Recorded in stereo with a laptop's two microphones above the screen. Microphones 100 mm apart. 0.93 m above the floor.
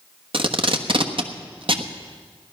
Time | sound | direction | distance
0.3 | tape being pulled | 60° right (ahead or behind) | 1.1 m